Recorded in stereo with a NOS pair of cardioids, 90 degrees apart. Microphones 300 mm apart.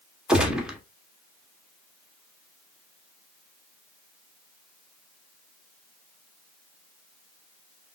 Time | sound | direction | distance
0.3 | a gunshot | 5° right | 0.8 m